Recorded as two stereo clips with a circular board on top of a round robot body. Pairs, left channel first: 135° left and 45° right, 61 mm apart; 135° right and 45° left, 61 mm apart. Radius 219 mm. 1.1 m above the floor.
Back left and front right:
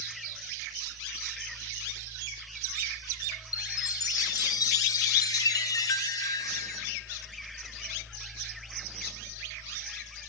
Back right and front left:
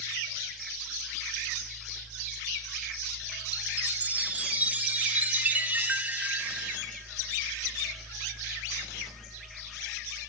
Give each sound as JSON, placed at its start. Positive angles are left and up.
{"t": 3.5, "sound": "a chime", "azimuth_deg": 110, "distance_m": 1.1}